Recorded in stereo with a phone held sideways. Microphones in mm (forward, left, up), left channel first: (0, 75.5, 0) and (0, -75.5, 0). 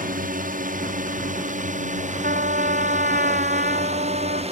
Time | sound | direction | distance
0.0 | a drone | 65° right (ahead or behind) | ?
2.2 | a trumpet | 70° right (ahead or behind) | ?